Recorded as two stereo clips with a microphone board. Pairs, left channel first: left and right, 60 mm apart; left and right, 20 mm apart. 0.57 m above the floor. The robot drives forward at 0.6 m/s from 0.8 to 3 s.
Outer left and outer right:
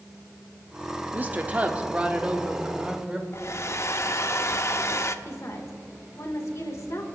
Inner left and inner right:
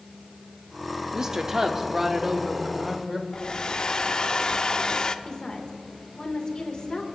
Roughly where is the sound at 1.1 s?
Right.